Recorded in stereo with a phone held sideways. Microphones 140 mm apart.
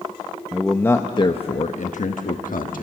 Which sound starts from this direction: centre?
A man speaking, at 0.5 s.